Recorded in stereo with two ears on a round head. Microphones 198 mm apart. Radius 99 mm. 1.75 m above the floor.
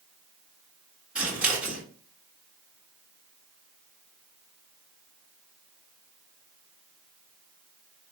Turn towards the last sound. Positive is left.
turn(degrees=-5)  # may be behind; listen again after turning